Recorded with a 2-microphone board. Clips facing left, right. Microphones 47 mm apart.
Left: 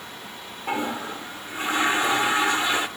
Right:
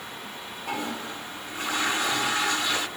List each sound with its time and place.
0.7 s a toilet flushing: 25° left (ahead or behind), 2 m